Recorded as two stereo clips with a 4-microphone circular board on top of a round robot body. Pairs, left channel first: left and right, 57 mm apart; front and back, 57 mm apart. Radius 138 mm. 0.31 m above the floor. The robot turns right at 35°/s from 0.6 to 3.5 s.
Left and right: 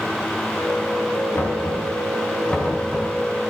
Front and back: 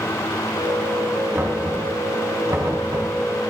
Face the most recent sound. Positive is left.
turn(degrees=-165)